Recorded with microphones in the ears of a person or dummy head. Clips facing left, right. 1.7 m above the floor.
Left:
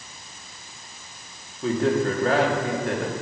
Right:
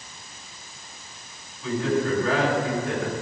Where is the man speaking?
40° left (ahead or behind), 3.5 m.